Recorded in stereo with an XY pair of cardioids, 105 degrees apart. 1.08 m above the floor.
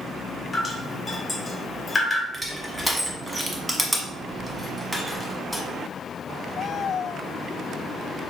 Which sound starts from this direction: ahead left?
Dripping, at 0.5 s.